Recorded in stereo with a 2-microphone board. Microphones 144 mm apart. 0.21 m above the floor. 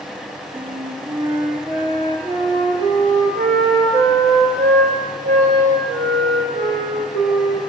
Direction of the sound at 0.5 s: 40° right (ahead or behind).